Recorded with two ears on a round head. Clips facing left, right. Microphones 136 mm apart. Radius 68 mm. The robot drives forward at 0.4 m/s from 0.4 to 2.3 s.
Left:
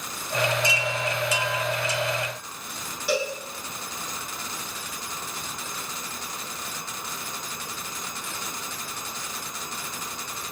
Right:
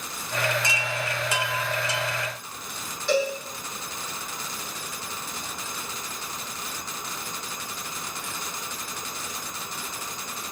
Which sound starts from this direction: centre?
A cowbell, at 3.1 s.